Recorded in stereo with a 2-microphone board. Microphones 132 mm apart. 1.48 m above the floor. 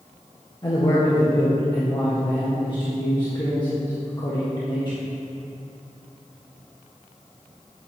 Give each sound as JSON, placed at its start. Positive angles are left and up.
{"t": 0.6, "sound": "a man speaking", "side_deg": 35, "distance_m": 1.6}